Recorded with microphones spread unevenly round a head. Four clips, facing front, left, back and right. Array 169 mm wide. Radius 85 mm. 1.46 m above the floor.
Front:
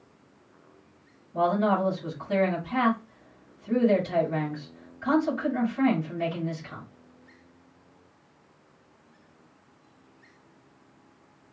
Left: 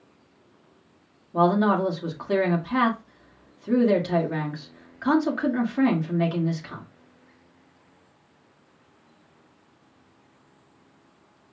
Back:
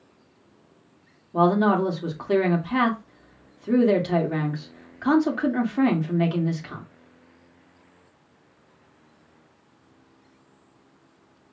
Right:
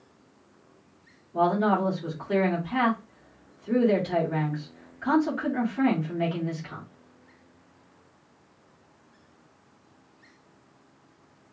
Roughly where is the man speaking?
Behind left.